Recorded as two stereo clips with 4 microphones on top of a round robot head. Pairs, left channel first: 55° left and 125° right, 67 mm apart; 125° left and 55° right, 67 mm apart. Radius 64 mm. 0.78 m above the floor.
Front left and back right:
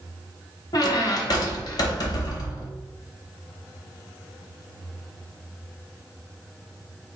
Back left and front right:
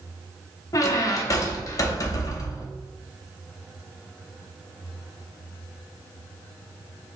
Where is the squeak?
85° left, 0.6 m.